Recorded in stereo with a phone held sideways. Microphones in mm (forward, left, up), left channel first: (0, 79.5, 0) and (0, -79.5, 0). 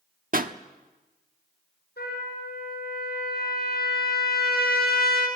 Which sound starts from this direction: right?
A pop, at 0.3 s.